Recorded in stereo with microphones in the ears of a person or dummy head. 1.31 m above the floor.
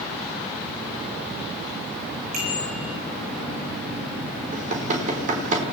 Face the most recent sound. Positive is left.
turn(degrees=-40)  # may be behind; listen again after turning